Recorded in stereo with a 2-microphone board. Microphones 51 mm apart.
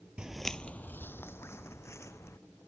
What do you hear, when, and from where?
0.2 s footsteps: 20° right (ahead or behind); by 2.4 s 65° left (ahead or behind)